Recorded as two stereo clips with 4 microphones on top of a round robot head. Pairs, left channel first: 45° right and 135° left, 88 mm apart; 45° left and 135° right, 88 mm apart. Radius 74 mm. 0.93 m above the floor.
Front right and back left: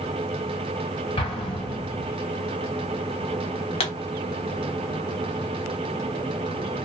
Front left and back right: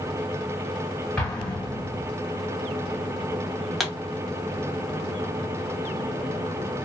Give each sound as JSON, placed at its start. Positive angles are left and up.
{"t": 1.2, "sound": "an explosion", "azimuth_deg": -35, "distance_m": 1.2}
{"t": 3.8, "sound": "a pop", "azimuth_deg": -45, "distance_m": 0.8}